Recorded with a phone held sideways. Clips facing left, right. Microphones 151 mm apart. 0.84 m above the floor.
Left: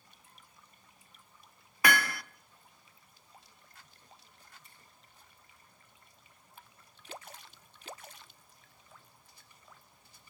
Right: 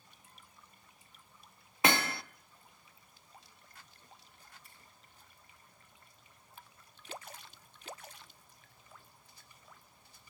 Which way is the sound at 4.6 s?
Centre (ahead or behind).